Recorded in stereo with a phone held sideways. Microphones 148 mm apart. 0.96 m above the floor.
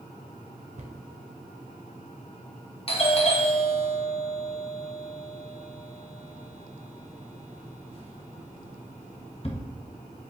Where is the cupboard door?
50° right (ahead or behind), 1.6 m.